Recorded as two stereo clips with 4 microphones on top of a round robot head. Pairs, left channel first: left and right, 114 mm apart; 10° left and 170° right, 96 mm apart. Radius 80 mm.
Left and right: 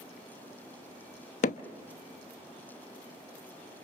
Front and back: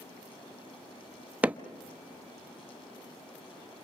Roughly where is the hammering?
Behind left.